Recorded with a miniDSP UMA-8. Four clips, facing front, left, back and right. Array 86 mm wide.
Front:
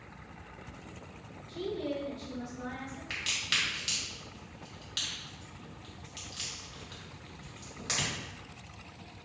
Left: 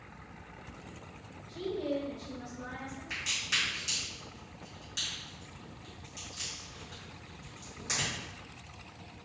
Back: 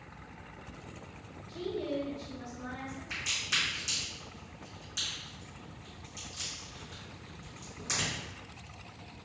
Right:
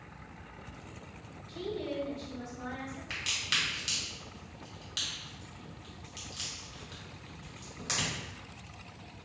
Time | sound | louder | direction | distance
1.5 | a woman speaking | left 3 dB, even | 70° right | 1.9 m
3.1 | a crack | even, front 2 dB | 45° right | 1.4 m